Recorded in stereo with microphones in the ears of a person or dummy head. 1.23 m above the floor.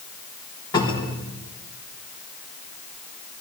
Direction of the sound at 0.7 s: 25° left (ahead or behind).